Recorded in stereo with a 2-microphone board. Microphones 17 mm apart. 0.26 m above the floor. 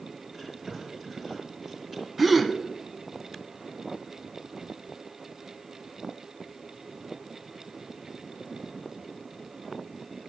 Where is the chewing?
20° right (ahead or behind), 5 m.